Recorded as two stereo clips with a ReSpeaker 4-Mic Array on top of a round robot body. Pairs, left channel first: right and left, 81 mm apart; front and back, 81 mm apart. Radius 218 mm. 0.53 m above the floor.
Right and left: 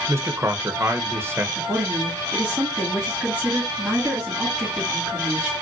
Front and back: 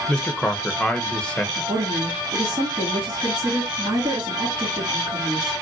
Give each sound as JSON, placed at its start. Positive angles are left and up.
{"t": 0.1, "sound": "a man speaking", "azimuth_deg": 65, "distance_m": 0.9}
{"t": 1.6, "sound": "a woman speaking", "azimuth_deg": 165, "distance_m": 2.0}